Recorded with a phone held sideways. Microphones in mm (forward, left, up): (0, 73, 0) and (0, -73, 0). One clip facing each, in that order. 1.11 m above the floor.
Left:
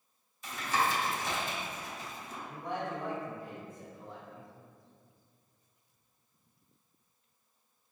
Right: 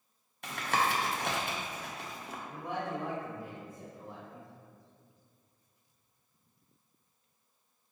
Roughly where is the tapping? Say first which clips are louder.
Even; right.